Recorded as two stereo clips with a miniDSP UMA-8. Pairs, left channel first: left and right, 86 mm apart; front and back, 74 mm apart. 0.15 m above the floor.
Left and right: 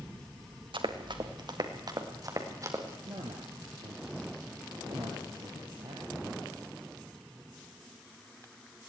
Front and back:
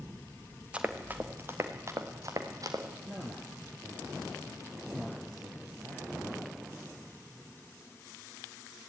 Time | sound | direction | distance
0.7 | running footsteps | 105° right | 3 m
3.0 | a man speaking | 115° right | 4 m